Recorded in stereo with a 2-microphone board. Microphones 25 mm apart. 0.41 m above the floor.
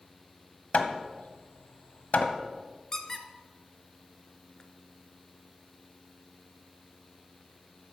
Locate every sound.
0.7 s hammering: 75° left (ahead or behind), 1.0 m
2.9 s a squeak: 20° left (ahead or behind), 1.0 m